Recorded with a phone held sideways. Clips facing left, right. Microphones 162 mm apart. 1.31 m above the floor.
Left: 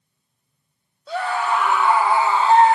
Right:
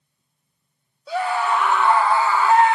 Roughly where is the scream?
Centre.